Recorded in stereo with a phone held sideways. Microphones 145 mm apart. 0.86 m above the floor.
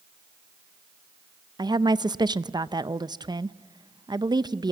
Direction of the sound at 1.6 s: 30° right (ahead or behind).